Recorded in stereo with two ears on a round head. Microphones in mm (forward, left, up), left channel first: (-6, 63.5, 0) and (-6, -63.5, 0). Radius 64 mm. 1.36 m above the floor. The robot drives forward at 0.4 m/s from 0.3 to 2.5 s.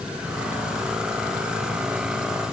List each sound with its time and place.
Only background noise.